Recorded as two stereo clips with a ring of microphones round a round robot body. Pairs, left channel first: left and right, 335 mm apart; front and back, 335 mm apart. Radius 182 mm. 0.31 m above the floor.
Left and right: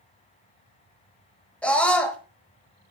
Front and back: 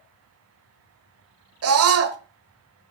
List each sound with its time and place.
1.6 s a scream: 175° left, 1.2 m